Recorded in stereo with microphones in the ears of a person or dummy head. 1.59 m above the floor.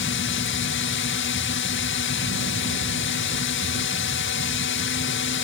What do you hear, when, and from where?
0.0 s a drone: 60° left (ahead or behind)